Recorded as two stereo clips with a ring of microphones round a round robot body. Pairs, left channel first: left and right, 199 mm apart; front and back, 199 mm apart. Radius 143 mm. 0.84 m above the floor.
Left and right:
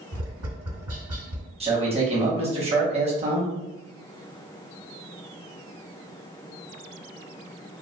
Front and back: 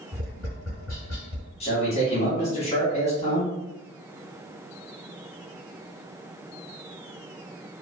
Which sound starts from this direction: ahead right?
A man speaking, at 1.6 s.